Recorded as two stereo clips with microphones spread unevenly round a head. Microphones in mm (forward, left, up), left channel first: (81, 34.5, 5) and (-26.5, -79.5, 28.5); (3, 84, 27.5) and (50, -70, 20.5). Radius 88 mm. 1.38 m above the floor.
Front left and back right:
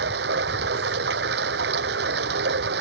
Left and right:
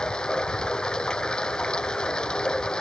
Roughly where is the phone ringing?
No phone ringing in this recording.